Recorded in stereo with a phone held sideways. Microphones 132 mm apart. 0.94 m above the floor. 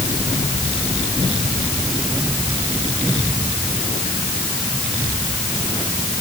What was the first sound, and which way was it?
Only background noise.